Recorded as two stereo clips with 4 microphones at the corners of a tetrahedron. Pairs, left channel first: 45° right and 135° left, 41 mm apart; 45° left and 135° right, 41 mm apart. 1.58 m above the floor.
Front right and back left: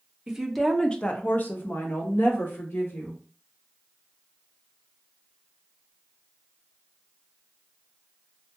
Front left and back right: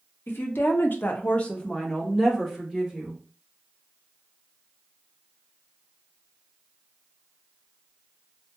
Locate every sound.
0.3 s a woman speaking: 60° left, 0.7 m; by 3.2 s 45° right, 1.7 m